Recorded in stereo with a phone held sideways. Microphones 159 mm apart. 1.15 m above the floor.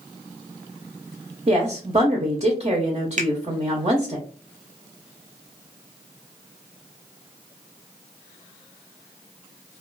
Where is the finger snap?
50° right (ahead or behind), 0.6 m.